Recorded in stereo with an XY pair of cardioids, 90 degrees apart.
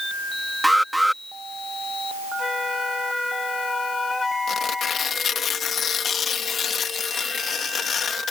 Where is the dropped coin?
I don't hear a dropped coin.